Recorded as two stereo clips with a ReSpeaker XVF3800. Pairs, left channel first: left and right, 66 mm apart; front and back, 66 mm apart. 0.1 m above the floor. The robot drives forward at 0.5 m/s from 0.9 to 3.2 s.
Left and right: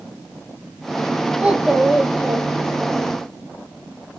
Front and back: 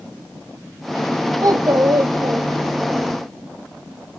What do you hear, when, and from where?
1.4 s a child speaking: 165° right, 2 m; by 3.1 s 170° right, 3 m